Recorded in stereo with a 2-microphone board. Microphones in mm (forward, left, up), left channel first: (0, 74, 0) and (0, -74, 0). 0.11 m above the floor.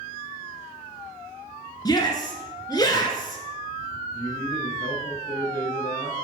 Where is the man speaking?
15° left (ahead or behind), 3.5 m.